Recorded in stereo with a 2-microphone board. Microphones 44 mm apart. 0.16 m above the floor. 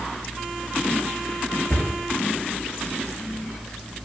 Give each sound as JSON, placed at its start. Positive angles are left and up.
{"t": 1.7, "sound": "a cupboard door", "side_deg": 55, "distance_m": 2.5}